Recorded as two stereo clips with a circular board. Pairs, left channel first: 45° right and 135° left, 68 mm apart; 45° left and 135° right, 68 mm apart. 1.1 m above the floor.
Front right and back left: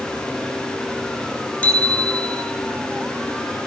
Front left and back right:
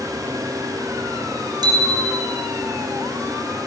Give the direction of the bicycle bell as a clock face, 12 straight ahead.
4 o'clock.